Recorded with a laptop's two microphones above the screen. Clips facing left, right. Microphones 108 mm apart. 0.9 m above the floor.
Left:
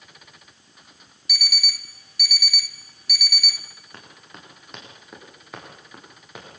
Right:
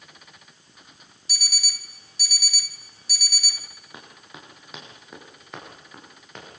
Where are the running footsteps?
5° right (ahead or behind), 8.5 m; by 6.5 s 10° left (ahead or behind), 10 m.